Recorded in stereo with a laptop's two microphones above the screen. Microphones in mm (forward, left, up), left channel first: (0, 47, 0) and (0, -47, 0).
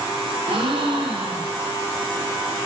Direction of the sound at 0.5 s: 70° right (ahead or behind).